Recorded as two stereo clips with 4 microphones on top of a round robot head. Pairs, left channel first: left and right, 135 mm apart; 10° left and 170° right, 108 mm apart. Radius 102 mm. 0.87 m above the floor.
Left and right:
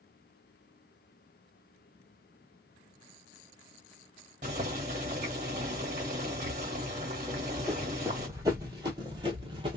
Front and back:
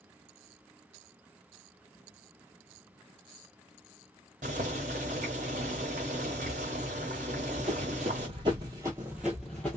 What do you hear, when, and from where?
4.4 s boiling: 140° right, 1.0 m
7.3 s running footsteps: 175° right, 1.3 m; by 9.8 s 65° right, 1.0 m